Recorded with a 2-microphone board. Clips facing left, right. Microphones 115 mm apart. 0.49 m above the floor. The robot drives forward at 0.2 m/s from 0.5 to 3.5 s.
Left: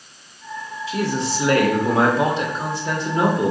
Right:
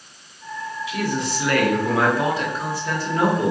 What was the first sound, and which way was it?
A man speaking, 30° left (ahead or behind).